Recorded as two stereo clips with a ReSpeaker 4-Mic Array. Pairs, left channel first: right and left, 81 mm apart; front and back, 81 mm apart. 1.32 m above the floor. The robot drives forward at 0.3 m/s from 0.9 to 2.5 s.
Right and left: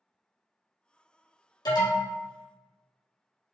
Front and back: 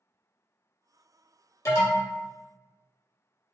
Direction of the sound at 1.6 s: 55° right.